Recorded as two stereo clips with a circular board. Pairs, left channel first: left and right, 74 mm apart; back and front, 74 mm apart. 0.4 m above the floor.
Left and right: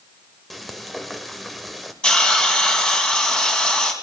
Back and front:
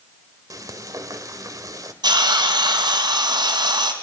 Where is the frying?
Straight ahead, 1.7 m.